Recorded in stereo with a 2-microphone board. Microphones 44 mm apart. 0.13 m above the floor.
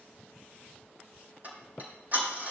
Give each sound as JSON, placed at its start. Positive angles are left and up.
{"t": 1.4, "sound": "ticking", "side_deg": -40, "distance_m": 5.0}